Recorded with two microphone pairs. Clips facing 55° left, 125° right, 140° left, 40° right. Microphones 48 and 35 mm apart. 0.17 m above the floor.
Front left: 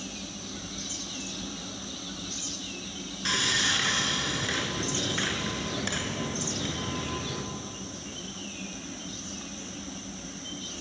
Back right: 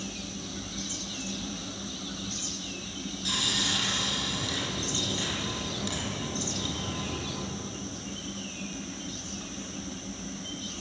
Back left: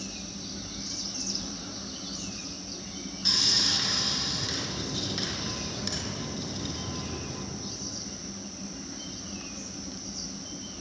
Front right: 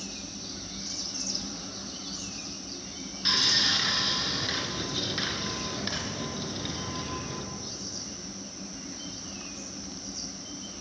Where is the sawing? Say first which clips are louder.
Front left 4 dB, front right 2 dB; 25° left, 2.5 m.